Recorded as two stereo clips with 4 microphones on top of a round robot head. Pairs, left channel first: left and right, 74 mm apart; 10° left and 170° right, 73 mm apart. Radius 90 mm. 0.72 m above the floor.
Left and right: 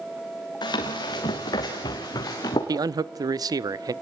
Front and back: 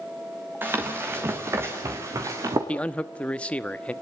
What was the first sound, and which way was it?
Running footsteps, 125° left.